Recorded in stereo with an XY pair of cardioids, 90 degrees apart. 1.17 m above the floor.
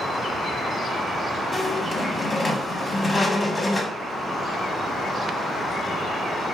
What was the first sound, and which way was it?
A squeak, 20° left.